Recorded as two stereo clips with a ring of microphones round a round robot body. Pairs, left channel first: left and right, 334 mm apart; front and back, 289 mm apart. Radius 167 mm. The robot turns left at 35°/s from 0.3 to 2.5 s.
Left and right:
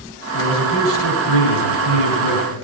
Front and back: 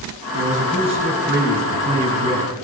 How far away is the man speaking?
About 3 m.